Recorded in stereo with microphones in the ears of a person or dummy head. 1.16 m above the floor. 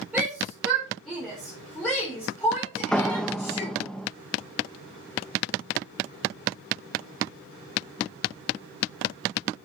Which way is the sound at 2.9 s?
5° left (ahead or behind).